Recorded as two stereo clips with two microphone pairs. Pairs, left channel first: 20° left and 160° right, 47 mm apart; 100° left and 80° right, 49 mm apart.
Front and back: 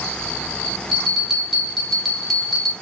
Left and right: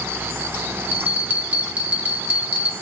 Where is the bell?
75° right, 1.0 m.